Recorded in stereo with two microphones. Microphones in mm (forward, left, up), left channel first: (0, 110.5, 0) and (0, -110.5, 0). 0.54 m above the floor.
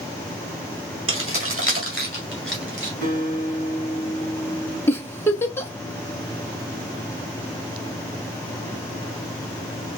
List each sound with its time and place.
1.1 s keys jangling: 65° right (ahead or behind), 1.5 m
3.0 s a guitar: 80° right, 3.5 m
4.9 s a giggle: 10° left (ahead or behind), 1.3 m